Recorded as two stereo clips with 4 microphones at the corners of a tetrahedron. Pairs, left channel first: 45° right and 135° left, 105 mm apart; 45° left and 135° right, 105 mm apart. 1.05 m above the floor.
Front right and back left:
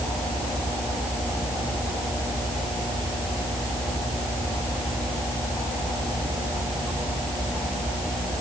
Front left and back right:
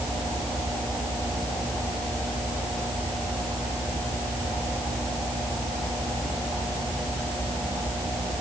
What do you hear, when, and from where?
Only background noise.